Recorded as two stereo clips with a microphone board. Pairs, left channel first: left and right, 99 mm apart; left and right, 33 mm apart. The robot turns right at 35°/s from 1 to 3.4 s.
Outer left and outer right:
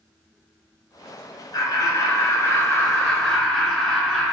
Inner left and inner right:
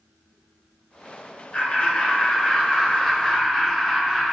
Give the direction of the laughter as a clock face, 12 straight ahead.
9 o'clock.